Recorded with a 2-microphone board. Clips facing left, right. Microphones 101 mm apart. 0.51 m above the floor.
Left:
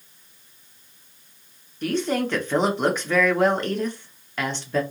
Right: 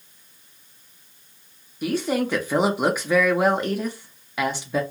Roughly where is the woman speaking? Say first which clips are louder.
Even; centre.